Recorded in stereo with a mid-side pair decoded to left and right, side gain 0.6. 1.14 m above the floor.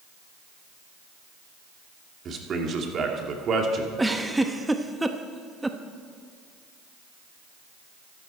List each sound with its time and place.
2.2 s a man speaking: 40° right, 2.5 m
4.0 s a giggle: 10° right, 1.0 m